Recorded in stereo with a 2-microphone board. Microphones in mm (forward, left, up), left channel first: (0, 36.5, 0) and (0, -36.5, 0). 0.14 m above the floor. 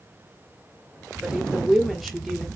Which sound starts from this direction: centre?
A woman speaking, at 1.2 s.